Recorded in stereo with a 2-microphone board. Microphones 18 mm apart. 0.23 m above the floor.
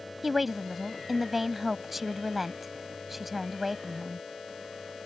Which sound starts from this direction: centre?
A woman speaking, at 0.2 s.